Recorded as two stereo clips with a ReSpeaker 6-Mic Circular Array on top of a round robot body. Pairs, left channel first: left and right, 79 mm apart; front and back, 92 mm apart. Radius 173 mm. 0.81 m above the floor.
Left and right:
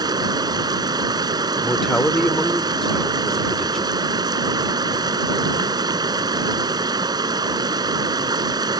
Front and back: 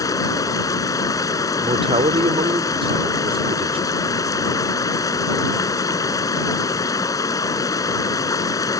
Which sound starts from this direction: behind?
A man speaking, at 1.6 s.